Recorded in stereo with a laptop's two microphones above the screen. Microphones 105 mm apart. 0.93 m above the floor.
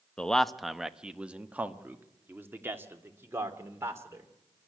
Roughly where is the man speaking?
Centre.